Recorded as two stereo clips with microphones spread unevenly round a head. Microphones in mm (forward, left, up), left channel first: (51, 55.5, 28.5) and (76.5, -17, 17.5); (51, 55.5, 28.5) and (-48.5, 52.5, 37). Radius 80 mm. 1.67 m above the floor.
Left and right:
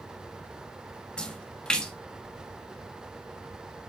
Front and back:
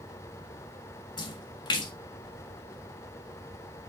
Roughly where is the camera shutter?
I don't hear a camera shutter.